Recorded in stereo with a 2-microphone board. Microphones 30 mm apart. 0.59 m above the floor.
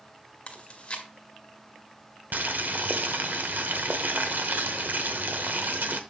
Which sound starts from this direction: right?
Boiling, at 2.3 s.